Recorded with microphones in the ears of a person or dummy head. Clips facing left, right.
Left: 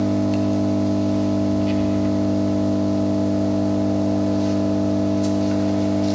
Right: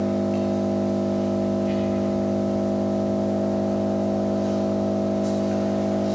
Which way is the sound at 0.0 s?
55° left (ahead or behind).